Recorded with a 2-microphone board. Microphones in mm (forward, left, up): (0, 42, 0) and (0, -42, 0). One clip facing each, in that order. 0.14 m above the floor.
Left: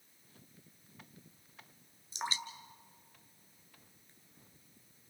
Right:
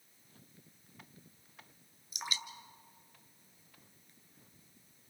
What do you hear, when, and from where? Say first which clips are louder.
2.1 s dripping: left 3 dB; 30° left (ahead or behind), 1.3 m